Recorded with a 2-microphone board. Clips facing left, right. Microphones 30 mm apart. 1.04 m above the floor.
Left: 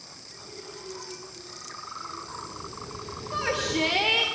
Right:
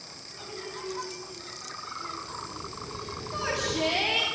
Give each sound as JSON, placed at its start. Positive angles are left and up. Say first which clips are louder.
{"t": 0.3, "sound": "laughter", "louder": "right 4 dB", "side_deg": -40, "distance_m": 6.5}
{"t": 3.3, "sound": "a shout", "louder": "left 3 dB", "side_deg": 70, "distance_m": 4.0}